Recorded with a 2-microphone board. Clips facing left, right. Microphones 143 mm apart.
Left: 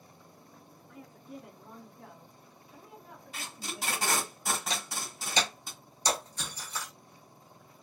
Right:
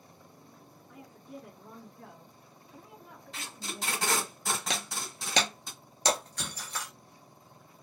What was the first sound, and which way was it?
A woman speaking, 5° right (ahead or behind).